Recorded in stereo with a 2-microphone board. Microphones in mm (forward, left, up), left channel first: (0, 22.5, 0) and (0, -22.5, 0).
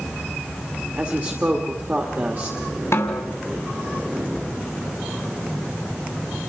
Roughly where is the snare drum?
Left.